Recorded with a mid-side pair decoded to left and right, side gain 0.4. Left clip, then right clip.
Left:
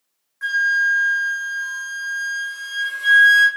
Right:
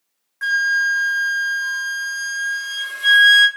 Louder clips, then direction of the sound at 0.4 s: Even; 50° right.